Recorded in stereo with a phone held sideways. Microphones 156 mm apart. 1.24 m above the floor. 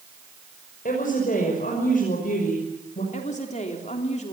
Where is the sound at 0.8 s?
60° left (ahead or behind), 6 m.